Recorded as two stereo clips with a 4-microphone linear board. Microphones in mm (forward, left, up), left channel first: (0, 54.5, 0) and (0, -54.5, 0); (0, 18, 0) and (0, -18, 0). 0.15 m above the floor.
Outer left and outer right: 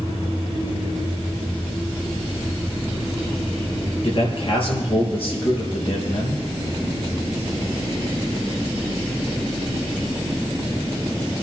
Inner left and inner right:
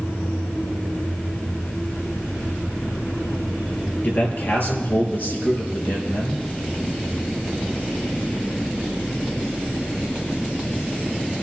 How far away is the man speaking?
About 3 m.